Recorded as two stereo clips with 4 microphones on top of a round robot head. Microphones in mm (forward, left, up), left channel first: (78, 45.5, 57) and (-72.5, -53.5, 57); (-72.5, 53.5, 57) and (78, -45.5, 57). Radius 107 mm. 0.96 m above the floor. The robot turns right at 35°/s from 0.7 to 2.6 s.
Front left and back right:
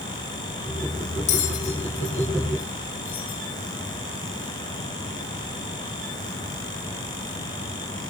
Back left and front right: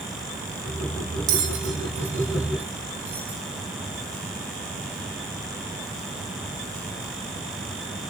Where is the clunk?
No clunk in this recording.